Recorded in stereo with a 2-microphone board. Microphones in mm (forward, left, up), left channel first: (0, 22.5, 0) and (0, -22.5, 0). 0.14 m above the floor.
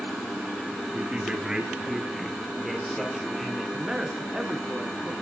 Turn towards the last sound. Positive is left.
turn(degrees=-15)  # may be behind; listen again after turning